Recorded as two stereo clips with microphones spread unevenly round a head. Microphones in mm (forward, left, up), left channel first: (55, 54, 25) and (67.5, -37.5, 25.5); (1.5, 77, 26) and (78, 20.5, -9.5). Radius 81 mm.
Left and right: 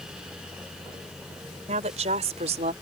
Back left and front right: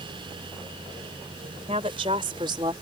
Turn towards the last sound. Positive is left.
turn(degrees=-100)